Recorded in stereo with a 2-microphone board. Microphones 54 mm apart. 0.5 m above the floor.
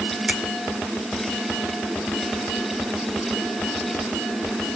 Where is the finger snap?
10° right (ahead or behind), 1.5 m.